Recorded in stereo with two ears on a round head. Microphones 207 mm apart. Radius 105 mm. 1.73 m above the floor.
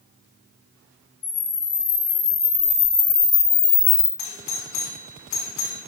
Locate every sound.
1.2 s a camera shutter: 45° left (ahead or behind), 1.6 m
4.2 s a doorbell: 85° left, 1.1 m